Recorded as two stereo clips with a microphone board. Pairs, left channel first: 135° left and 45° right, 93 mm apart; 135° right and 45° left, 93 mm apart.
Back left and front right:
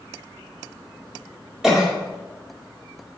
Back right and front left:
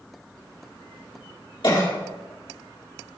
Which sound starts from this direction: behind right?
A cough, at 1.6 s.